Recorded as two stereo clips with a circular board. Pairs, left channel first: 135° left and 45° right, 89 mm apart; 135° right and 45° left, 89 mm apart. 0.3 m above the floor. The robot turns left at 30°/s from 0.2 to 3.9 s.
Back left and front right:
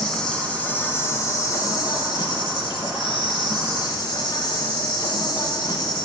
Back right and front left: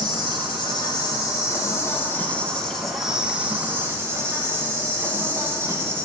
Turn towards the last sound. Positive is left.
turn(degrees=105)